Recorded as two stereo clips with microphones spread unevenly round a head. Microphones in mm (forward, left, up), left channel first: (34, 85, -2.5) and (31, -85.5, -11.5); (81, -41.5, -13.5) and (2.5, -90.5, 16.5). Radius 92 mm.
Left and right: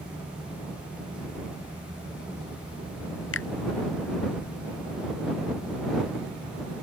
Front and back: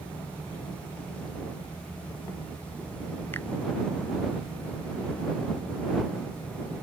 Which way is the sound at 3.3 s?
115° left.